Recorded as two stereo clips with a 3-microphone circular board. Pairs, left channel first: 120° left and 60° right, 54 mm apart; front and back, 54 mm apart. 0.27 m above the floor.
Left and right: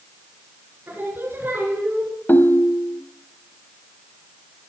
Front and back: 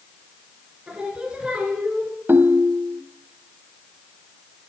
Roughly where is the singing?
Right.